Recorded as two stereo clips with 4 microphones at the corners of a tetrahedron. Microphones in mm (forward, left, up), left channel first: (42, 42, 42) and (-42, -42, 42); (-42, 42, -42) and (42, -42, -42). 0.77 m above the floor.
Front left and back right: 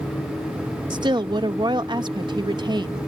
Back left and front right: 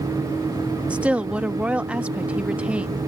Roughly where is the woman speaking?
Behind right.